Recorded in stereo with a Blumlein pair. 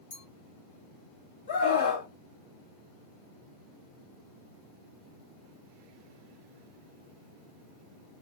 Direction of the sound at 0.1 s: 65° left.